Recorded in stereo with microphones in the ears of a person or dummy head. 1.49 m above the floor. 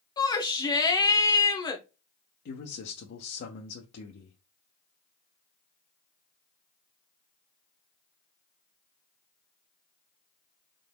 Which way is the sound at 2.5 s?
55° left (ahead or behind).